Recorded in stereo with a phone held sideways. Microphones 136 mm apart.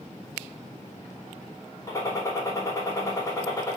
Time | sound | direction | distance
1.9 | a gunshot | 25° left (ahead or behind) | 2.5 m